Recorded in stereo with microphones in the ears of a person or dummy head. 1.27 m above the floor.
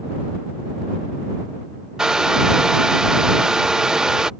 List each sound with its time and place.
2.0 s a hair dryer: 5° right (ahead or behind)